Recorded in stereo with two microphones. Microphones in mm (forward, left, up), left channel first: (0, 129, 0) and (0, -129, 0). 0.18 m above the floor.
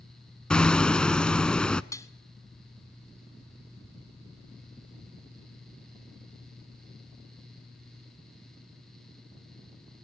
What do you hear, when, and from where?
0.5 s hammering: 5° left (ahead or behind), 0.5 m
1.9 s dishes clattering: 10° left (ahead or behind), 1.0 m